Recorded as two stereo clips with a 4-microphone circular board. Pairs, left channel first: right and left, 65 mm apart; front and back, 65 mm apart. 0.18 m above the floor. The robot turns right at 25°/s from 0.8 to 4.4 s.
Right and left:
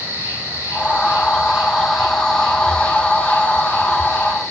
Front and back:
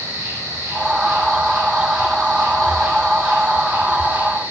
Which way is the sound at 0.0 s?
145° left.